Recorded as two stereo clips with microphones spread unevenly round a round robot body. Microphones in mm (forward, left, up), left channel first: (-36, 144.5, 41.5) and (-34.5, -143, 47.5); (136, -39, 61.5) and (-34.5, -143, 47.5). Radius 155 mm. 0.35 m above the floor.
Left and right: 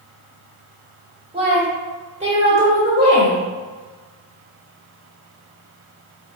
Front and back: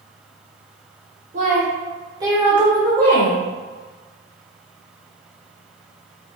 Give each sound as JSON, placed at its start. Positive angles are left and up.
{"t": 1.3, "sound": "a woman speaking", "azimuth_deg": -150, "distance_m": 1.6}